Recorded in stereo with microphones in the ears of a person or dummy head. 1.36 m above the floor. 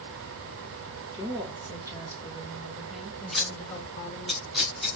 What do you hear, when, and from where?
1.1 s a woman speaking: 20° right (ahead or behind), 2.5 m; by 4.3 s 25° left (ahead or behind), 1.4 m
3.3 s scissors: centre (ahead or behind), 0.6 m